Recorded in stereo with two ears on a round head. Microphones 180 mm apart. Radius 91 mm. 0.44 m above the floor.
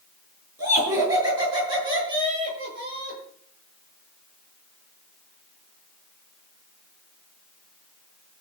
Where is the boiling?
I don't hear boiling.